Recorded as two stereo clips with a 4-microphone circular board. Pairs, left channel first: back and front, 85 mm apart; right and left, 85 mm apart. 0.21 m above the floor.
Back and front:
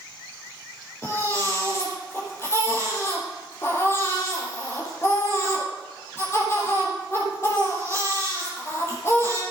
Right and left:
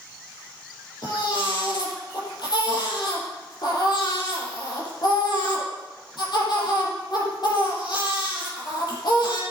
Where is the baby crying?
120° right, 5 m.